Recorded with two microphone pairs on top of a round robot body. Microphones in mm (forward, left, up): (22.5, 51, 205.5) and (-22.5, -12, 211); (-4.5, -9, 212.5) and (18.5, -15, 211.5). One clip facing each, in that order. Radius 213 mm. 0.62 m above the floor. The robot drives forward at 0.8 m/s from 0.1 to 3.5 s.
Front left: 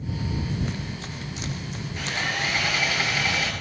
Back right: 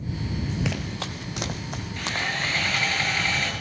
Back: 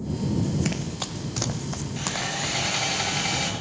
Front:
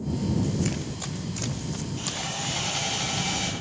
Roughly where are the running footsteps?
Behind right.